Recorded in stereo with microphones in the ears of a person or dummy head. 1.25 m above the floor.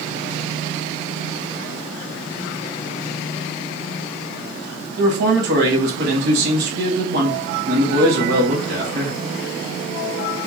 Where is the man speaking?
70° right (ahead or behind), 1.6 m.